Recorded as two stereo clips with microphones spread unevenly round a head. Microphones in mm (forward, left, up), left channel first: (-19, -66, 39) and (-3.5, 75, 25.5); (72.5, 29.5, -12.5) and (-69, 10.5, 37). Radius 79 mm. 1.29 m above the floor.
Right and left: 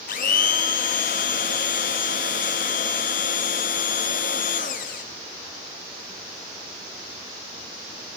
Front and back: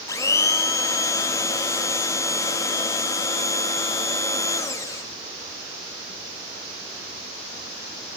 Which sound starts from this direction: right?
A blender, at 0.1 s.